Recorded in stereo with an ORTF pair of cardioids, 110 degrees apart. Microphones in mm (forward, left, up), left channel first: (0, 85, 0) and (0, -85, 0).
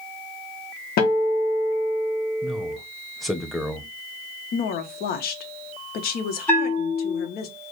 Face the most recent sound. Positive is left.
turn(degrees=10)